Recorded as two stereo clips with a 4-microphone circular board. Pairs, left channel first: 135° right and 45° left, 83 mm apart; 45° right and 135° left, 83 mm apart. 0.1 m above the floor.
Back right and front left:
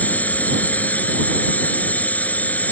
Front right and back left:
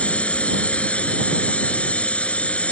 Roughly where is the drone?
Right.